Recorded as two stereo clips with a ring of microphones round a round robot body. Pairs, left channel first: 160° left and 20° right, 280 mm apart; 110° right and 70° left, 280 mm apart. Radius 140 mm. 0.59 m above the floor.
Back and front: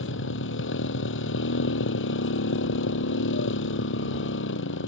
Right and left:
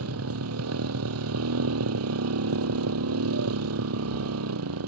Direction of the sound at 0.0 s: 110° left.